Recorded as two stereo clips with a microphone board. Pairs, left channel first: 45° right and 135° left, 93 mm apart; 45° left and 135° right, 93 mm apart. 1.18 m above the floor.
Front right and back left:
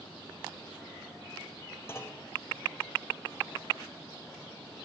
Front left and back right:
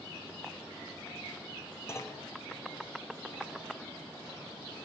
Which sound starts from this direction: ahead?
A clunk, at 1.9 s.